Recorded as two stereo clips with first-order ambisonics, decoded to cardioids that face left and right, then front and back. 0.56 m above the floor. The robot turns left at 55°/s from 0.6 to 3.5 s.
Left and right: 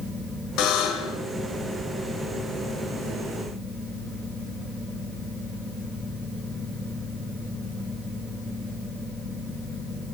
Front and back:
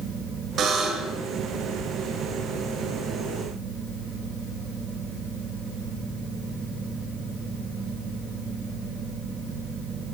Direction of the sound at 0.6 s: 125° left.